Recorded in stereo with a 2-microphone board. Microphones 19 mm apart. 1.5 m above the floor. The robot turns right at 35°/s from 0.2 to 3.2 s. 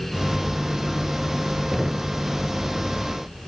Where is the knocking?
20° right (ahead or behind), 0.6 m; by 2.2 s 15° right (ahead or behind), 0.6 m.